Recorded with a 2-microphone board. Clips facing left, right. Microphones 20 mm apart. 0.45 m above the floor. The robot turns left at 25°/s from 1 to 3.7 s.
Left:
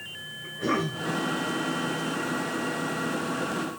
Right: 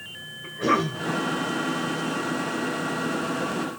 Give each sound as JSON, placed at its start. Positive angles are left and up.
{"t": 0.4, "sound": "a cough", "side_deg": -30, "distance_m": 2.0}